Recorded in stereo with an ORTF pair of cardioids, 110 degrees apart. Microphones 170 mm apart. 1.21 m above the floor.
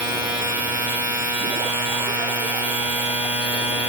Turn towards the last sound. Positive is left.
turn(degrees=-10)